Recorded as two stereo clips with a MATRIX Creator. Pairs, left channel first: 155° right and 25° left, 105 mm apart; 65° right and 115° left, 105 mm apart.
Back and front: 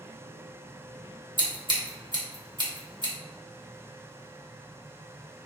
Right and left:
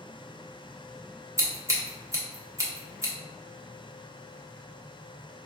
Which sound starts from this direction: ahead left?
Scissors, at 1.4 s.